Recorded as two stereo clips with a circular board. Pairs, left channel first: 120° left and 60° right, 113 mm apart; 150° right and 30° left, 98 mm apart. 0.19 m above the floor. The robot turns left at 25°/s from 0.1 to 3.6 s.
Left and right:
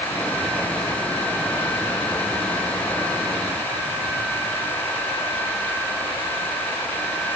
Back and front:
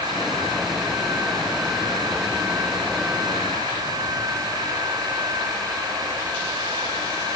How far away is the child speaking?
No child speaking in this recording.